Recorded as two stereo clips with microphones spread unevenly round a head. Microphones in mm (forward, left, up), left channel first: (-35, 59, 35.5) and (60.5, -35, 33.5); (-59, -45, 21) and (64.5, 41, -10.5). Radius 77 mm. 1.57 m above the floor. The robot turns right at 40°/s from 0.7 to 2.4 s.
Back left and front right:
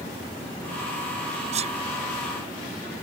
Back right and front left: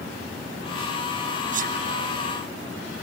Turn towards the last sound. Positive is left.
turn(degrees=30)